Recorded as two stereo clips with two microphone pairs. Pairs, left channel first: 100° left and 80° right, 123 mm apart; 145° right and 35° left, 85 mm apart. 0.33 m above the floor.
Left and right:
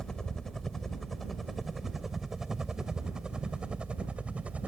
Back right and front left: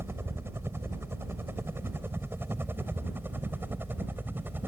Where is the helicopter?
20° left; by 4.7 s 10° right.